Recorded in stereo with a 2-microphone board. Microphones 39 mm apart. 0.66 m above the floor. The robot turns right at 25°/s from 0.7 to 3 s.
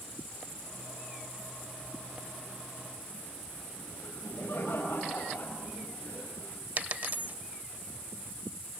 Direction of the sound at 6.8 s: 45° right (ahead or behind).